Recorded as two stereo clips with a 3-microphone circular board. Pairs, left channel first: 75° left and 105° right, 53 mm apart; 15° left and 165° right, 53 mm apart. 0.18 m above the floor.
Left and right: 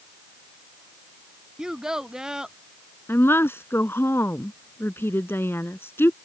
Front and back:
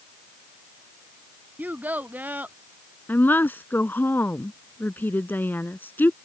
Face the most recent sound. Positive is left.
turn(degrees=55)